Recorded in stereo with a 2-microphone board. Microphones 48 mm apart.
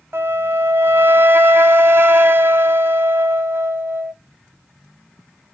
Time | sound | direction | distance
0.1 | a flute | 55° right (ahead or behind) | 0.5 m